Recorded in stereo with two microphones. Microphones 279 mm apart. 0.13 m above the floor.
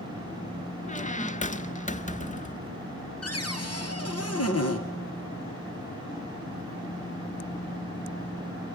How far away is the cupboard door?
About 1.7 m.